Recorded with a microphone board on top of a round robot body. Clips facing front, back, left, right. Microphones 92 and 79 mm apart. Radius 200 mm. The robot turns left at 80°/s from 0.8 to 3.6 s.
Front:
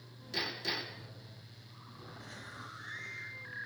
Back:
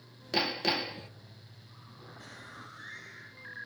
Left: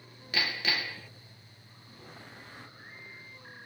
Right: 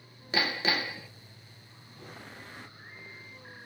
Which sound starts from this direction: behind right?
Hammering, at 0.3 s.